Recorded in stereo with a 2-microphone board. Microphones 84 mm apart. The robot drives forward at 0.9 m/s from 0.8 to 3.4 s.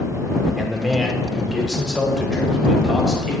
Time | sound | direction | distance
0.6 | a man speaking | centre (ahead or behind) | 1.5 m